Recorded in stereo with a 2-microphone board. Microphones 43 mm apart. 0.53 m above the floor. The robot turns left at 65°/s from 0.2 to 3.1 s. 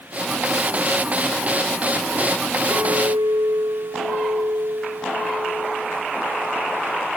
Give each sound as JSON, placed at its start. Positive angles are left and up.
{"t": 2.7, "sound": "a clink", "side_deg": -65, "distance_m": 4.0}